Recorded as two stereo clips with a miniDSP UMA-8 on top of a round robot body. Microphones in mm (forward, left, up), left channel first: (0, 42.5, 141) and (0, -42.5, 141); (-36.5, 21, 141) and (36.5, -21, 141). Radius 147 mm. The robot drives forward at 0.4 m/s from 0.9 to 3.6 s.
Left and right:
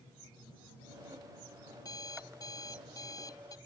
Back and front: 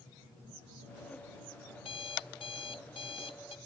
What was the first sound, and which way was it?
An alarm clock, 135° left.